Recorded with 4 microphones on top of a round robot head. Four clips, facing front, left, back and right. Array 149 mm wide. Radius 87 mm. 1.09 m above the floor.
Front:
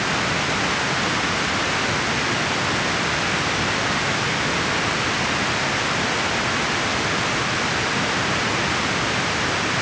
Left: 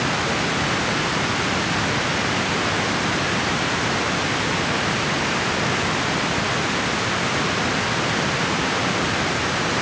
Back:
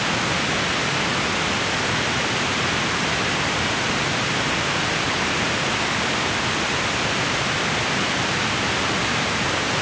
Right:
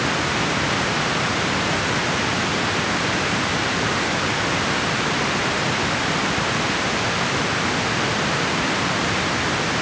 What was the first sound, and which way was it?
Only background noise.